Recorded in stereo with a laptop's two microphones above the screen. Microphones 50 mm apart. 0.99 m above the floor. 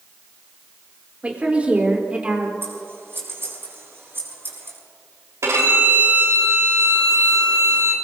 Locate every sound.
1.2 s a woman speaking: 25° right (ahead or behind), 3.5 m
2.6 s scissors: 50° right (ahead or behind), 8 m
5.4 s a violin: 75° right (ahead or behind), 4 m